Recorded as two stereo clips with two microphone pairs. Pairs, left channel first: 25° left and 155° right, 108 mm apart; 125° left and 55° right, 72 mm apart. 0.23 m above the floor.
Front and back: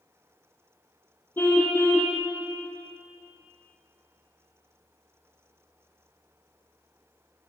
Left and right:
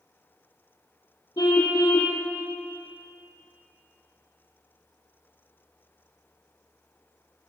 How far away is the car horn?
About 4.5 m.